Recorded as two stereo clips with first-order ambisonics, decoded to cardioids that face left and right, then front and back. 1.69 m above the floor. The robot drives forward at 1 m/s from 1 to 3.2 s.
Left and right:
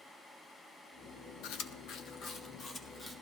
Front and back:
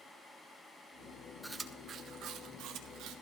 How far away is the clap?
No clap in this recording.